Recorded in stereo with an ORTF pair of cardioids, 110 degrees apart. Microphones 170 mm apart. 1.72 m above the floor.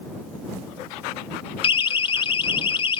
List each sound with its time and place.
1.6 s a siren: 30° left